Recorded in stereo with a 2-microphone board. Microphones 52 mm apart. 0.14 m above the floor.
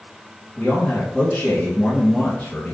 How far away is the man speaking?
About 1.5 m.